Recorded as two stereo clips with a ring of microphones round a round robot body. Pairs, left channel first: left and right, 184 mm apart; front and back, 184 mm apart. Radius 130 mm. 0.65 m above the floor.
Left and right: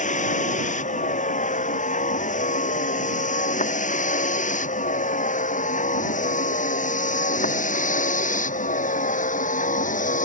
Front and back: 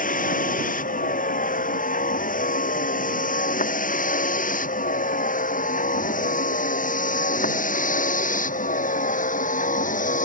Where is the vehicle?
45° left.